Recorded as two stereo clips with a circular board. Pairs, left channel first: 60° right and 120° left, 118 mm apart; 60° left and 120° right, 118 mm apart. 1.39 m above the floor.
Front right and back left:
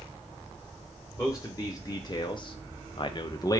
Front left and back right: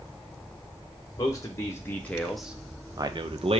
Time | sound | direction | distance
1.2 | a man speaking | 5° left | 1.0 m